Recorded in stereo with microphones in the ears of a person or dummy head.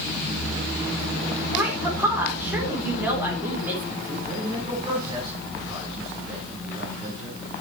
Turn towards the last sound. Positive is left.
turn(degrees=-25)  # may be behind; listen again after turning